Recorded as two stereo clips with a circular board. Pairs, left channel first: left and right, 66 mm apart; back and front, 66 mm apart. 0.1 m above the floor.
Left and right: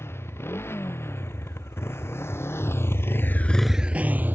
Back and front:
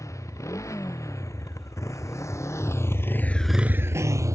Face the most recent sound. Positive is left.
turn(degrees=-30)